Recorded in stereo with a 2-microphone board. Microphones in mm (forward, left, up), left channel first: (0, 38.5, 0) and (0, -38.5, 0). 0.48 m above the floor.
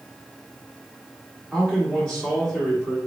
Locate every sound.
1.5 s a man speaking: 15° left (ahead or behind), 1.4 m